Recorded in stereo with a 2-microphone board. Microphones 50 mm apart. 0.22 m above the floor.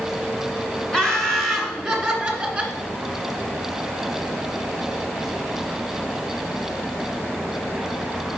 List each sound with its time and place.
0.9 s laughter: 15° left (ahead or behind), 2 m; by 2.8 s 20° right (ahead or behind), 2.5 m